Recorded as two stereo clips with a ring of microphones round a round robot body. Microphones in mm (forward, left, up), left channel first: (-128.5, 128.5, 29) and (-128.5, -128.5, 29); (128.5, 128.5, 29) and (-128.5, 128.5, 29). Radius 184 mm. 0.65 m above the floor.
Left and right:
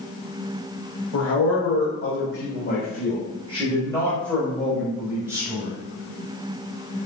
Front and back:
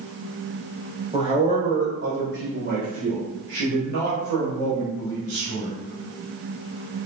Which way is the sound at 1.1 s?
110° left.